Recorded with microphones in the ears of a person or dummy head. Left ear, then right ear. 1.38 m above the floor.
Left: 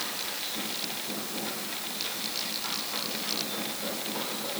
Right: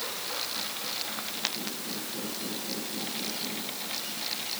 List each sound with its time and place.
Only background noise.